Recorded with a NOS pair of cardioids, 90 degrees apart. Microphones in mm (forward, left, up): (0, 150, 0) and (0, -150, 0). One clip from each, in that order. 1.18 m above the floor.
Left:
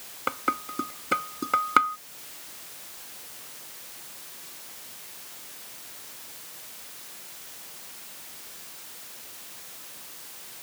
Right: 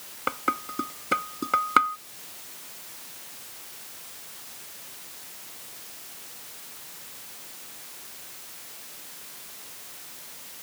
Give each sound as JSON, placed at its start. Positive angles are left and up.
{"t": 0.3, "sound": "dishes clattering", "azimuth_deg": 0}